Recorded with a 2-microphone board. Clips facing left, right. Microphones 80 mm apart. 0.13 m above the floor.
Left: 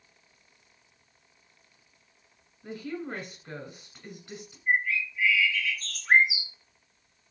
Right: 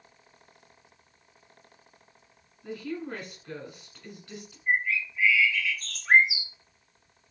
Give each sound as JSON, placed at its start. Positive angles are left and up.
{"t": 2.6, "sound": "a woman speaking", "side_deg": 20, "distance_m": 1.2}
{"t": 4.7, "sound": "a bird", "side_deg": -30, "distance_m": 1.8}